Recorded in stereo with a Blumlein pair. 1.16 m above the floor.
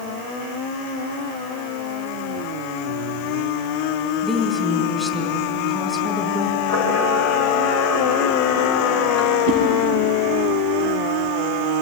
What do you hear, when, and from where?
4.2 s a woman speaking: 10° left, 4.5 m
6.7 s a camera shutter: 55° left, 4.5 m
9.5 s a whoosh: 45° left, 4 m